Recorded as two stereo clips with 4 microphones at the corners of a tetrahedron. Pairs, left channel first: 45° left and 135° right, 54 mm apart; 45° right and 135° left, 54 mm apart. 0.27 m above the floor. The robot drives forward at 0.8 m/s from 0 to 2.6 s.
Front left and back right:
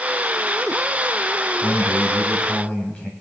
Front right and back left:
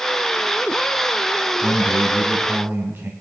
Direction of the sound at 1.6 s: 70° left.